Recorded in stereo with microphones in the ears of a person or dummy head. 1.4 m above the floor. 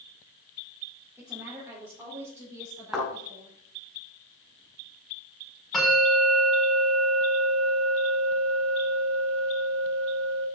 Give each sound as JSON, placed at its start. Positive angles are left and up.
{"t": 1.2, "sound": "a woman speaking", "side_deg": -10, "distance_m": 4.0}
{"t": 2.9, "sound": "a thud", "side_deg": -5, "distance_m": 5.0}
{"t": 5.7, "sound": "a bell", "side_deg": 5, "distance_m": 6.5}